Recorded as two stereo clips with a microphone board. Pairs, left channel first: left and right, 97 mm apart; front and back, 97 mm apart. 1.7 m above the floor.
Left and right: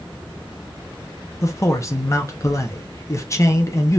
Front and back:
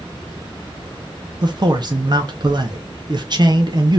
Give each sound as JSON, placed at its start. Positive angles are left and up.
{"t": 1.4, "sound": "a man speaking", "azimuth_deg": 145, "distance_m": 0.9}